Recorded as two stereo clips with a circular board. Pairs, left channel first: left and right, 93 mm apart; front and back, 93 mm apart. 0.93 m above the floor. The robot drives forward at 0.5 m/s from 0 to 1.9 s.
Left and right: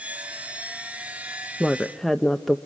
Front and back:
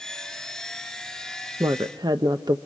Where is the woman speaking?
175° left, 0.6 m; by 2.6 s straight behind, 0.7 m.